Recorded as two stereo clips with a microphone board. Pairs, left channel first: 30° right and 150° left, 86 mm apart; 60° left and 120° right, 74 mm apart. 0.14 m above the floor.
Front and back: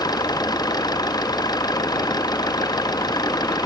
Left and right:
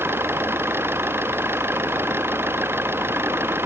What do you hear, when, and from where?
0.0 s an engine running: 65° right